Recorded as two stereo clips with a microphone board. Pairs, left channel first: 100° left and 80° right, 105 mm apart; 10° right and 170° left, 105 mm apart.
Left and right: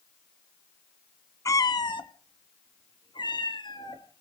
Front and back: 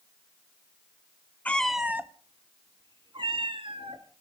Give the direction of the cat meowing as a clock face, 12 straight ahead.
10 o'clock.